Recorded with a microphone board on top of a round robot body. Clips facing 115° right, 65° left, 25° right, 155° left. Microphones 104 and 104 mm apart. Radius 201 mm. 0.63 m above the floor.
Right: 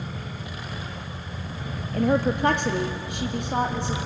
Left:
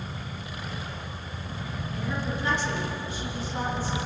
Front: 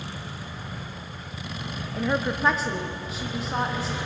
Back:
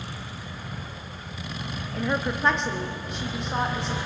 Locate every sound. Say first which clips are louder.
1.9 s a woman speaking: right 11 dB, front 1 dB; 110° right, 1.6 m